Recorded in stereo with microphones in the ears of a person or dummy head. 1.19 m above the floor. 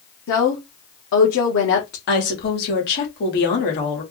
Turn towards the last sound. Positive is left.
turn(degrees=55)  # may be behind; listen again after turning